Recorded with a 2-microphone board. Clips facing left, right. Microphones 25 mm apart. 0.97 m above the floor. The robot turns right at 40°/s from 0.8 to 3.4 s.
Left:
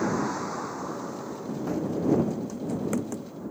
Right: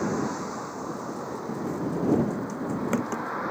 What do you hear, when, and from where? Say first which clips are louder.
0.0 s a vehicle: left 1 dB; 5° left (ahead or behind); by 3.5 s 65° right (ahead or behind)
1.7 s running footsteps: even; 35° left (ahead or behind); by 3.3 s 40° right (ahead or behind)